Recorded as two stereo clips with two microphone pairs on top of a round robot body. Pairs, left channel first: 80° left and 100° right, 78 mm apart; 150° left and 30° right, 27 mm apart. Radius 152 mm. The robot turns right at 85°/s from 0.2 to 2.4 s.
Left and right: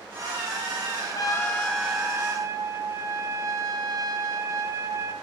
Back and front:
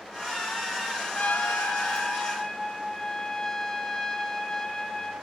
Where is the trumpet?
110° left, 3 m; by 5.1 s 145° right, 3 m.